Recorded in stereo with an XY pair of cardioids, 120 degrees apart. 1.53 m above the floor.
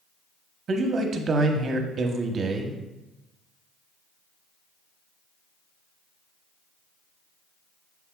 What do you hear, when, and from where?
0.7 s a man speaking: 45° right, 1.0 m